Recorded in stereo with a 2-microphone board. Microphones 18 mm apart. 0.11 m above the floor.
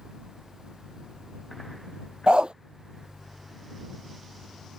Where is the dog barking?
70° right (ahead or behind).